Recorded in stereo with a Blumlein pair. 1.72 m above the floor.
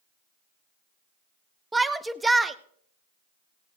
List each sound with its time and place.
1.7 s a shout: 10° right, 0.7 m